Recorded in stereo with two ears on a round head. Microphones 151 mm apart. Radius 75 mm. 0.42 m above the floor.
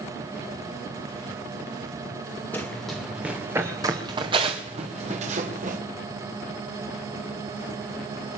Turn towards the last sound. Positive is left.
turn(degrees=-50)  # may be behind; listen again after turning